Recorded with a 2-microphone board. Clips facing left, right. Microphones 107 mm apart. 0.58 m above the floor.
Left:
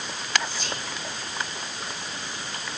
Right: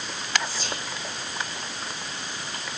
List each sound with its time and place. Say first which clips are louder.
0.4 s whispering: even; 35° right (ahead or behind), 2.5 m